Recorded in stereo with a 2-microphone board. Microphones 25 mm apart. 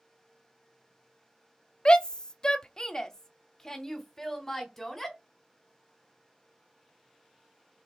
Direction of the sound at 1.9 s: 35° left (ahead or behind).